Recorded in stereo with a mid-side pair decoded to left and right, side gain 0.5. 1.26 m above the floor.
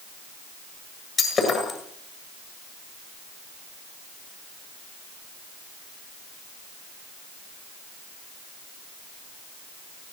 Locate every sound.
1.2 s breaking glass: 45° left, 8 m